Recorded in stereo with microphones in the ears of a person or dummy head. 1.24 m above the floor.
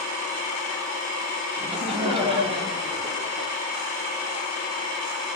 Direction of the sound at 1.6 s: 25° right (ahead or behind).